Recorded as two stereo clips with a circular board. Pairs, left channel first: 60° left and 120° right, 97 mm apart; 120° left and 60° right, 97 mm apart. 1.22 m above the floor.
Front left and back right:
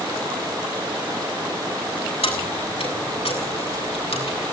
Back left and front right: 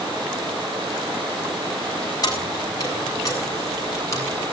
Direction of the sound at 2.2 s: 70° left.